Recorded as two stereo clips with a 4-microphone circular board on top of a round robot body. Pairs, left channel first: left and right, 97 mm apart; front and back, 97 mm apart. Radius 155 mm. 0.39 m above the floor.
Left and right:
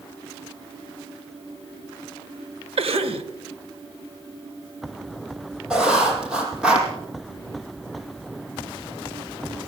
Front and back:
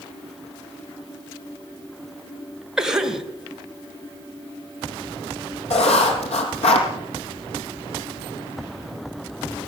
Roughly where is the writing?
Ahead.